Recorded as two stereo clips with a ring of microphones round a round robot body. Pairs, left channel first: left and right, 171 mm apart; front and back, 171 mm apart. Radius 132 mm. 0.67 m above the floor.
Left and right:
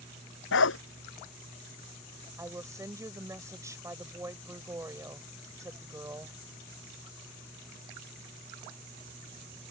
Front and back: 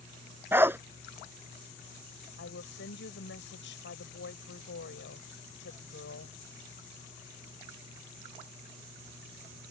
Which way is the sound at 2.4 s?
20° right.